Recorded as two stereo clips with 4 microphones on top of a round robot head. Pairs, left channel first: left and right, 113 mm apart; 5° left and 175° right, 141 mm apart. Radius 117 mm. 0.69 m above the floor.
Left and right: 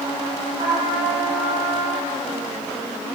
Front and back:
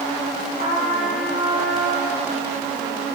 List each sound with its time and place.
0.6 s a trumpet: 130° right, 5.5 m